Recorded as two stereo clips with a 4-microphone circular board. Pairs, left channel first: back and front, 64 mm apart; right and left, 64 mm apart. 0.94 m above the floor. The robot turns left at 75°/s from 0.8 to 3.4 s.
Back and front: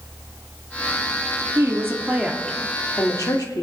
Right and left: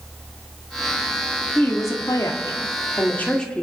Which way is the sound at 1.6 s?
30° right.